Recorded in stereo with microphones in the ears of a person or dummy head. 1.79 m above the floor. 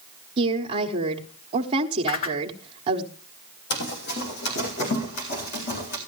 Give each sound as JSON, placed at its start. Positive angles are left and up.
{"t": 0.4, "sound": "a woman speaking", "side_deg": -30, "distance_m": 1.2}
{"t": 2.1, "sound": "a whoosh", "side_deg": 45, "distance_m": 1.3}
{"t": 3.7, "sound": "running footsteps", "side_deg": 50, "distance_m": 3.0}